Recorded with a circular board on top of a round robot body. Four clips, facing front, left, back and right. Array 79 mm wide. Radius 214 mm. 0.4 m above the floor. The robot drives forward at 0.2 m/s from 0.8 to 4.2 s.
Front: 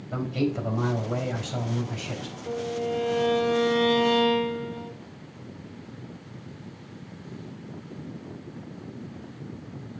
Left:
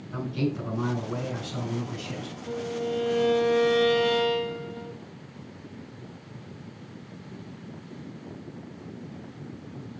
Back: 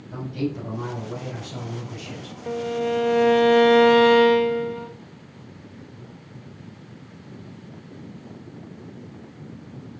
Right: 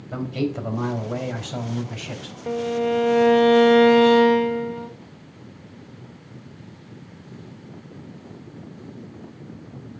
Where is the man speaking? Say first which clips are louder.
Right 3 dB, front 1 dB; 65° right, 2.5 m; by 2.4 s 75° right, 2.5 m.